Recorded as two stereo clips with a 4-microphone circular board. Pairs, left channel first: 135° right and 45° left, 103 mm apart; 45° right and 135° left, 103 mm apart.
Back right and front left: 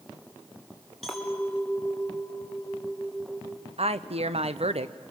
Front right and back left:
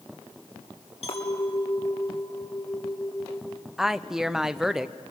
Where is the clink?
45° right, 3.5 m.